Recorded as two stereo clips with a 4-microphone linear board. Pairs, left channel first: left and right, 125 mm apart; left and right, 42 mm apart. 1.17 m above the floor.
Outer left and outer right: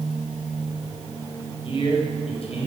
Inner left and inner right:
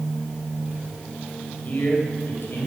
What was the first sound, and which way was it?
A man speaking, 45° left (ahead or behind).